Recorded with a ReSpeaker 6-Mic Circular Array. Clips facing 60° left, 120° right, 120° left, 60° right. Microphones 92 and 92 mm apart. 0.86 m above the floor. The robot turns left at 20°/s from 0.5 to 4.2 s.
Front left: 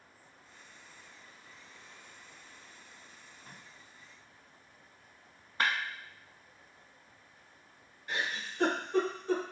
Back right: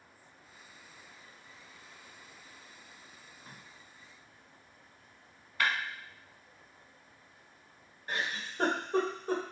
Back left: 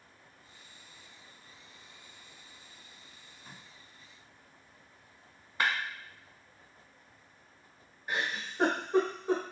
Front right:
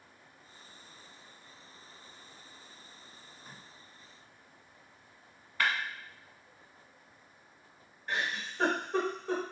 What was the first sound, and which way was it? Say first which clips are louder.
Tape being pulled: back right 1 dB, even; 120° right.